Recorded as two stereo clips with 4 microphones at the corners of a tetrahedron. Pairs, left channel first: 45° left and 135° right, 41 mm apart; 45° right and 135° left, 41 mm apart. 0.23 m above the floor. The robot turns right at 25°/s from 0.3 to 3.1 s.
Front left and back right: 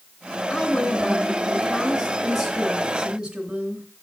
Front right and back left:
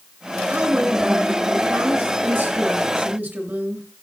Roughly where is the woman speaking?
Left.